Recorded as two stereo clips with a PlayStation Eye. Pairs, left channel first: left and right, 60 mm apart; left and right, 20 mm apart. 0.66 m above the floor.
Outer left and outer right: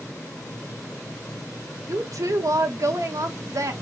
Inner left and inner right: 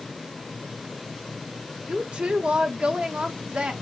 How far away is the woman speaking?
About 1.0 m.